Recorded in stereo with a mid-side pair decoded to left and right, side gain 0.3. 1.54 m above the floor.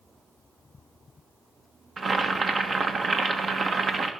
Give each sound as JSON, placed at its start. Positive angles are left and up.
{"t": 2.0, "sound": "boiling", "azimuth_deg": -55, "distance_m": 1.5}